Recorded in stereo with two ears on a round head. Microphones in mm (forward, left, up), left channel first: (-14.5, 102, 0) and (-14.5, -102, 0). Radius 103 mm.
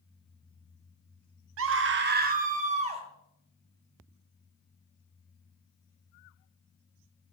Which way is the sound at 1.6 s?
70° right (ahead or behind).